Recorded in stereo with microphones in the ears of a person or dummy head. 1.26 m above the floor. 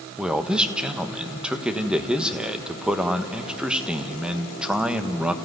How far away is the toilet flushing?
I don't hear a toilet flushing.